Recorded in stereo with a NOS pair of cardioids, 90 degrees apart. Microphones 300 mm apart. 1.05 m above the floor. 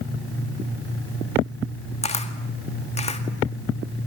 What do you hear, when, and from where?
2.0 s a camera shutter: 20° left, 2 m